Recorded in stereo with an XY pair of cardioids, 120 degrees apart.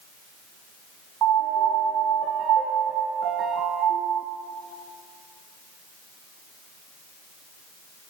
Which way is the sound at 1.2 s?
60° right.